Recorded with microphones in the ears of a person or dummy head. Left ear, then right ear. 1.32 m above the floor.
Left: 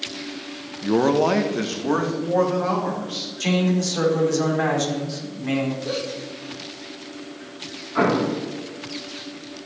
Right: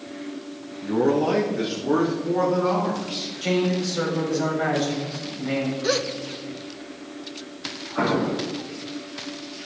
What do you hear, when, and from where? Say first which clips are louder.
0.8 s a man speaking: left 3 dB; 55° left (ahead or behind), 0.9 m; by 3.3 s 40° left (ahead or behind), 2.5 m
3.4 s a man speaking: even; 75° left (ahead or behind), 4 m
5.8 s a gasp: right 4 dB; 70° right (ahead or behind), 0.9 m
8.0 s an explosion: left 3 dB; 85° left, 3.5 m